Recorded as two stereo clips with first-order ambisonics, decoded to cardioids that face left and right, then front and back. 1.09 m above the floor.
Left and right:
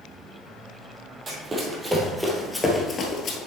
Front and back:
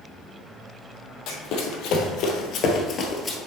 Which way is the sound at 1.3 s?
20° right.